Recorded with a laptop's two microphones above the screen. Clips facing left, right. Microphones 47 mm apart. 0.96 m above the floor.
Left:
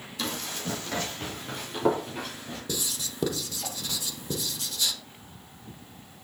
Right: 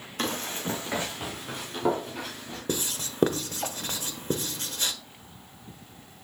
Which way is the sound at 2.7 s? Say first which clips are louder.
Right 4 dB; 40° right (ahead or behind).